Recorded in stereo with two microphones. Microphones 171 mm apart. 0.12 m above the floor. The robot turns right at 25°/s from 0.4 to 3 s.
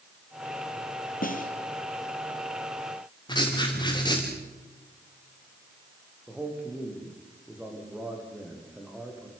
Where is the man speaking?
5° right (ahead or behind), 7.5 m.